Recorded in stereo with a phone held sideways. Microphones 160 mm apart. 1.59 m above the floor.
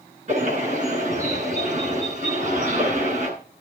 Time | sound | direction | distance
0.3 | a bird | 50° right (ahead or behind) | 9.5 m